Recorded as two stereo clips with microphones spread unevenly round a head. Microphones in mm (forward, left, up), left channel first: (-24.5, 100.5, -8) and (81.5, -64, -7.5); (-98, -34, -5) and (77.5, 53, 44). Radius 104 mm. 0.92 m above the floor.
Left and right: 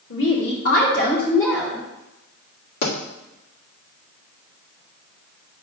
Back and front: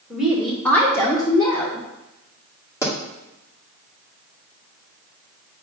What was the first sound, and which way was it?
A woman speaking, 120° left.